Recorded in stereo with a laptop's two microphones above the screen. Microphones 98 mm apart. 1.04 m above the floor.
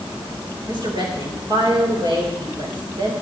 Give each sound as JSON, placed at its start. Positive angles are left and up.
{"t": 0.7, "sound": "a woman speaking", "side_deg": -50, "distance_m": 4.5}